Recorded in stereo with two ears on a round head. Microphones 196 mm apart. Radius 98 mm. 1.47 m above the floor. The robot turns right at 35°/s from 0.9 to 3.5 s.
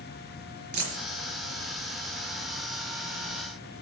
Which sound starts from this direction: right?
A dropped coin, at 0.7 s.